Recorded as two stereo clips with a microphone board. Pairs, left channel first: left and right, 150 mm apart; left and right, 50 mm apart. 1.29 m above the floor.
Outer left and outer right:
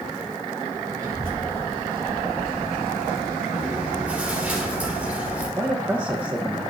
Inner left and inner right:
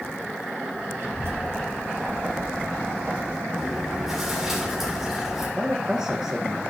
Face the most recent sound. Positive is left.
turn(degrees=-15)  # may be behind; listen again after turning